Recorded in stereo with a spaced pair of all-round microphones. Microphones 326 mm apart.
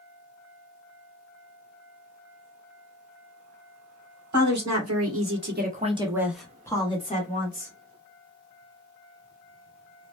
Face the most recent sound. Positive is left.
turn(degrees=30)  # may be behind; listen again after turning